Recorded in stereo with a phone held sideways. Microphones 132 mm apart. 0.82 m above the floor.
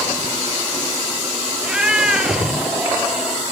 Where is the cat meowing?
5° right (ahead or behind), 1.7 m.